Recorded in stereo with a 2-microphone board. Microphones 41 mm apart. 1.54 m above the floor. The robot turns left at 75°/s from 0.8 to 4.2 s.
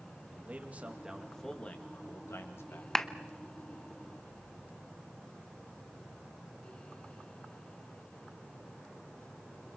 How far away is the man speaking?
About 3 m.